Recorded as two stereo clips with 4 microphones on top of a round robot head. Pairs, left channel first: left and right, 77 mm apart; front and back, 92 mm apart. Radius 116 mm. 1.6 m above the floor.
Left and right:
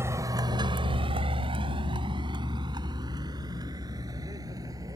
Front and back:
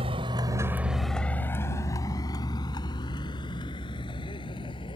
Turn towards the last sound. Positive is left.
turn(degrees=-40)